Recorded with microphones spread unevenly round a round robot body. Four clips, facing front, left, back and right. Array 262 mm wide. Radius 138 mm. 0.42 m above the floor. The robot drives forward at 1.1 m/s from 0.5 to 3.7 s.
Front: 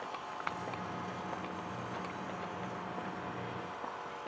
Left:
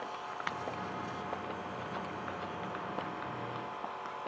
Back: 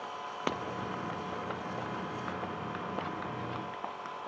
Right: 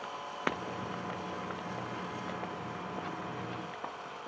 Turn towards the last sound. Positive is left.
turn(degrees=-140)